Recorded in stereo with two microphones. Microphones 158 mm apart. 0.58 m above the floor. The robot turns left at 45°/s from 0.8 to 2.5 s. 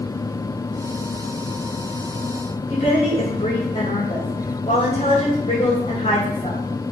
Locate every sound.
2.7 s a woman speaking: 45° left (ahead or behind), 1.5 m